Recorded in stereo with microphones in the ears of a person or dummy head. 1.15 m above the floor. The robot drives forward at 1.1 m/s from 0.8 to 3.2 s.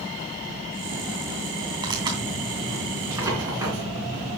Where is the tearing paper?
25° right (ahead or behind), 2.5 m; by 4.3 s 15° right (ahead or behind), 4 m.